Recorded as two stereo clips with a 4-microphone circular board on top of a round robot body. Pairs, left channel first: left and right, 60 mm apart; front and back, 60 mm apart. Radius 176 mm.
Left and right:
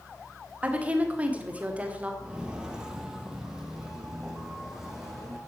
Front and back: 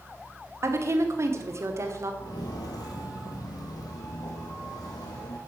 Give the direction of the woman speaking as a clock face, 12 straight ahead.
5 o'clock.